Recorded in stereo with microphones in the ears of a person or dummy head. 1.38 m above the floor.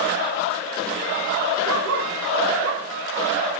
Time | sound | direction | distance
1.6 | a dog barking | 75° right (ahead or behind) | 7 m